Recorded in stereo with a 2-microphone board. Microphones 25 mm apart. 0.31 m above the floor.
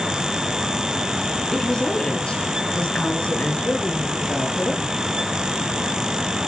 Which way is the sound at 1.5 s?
20° left (ahead or behind).